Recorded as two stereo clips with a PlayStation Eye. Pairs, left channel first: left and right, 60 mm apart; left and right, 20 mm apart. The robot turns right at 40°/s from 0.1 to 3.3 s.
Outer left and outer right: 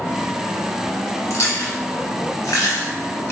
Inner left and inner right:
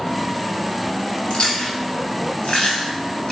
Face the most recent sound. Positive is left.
turn(degrees=50)  # may be behind; listen again after turning